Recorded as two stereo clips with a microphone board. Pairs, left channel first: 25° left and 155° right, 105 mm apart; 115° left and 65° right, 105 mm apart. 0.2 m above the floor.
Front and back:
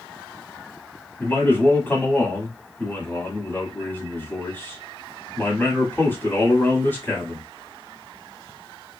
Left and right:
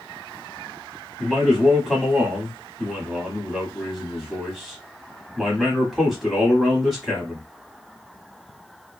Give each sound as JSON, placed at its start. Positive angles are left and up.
{"t": 1.2, "sound": "a man speaking", "azimuth_deg": 15, "distance_m": 1.2}